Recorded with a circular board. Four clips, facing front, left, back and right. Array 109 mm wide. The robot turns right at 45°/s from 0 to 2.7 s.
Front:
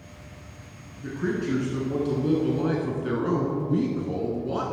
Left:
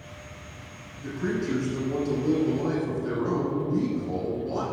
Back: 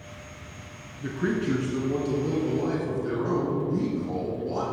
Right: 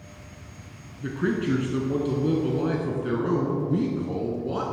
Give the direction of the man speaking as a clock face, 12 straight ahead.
4 o'clock.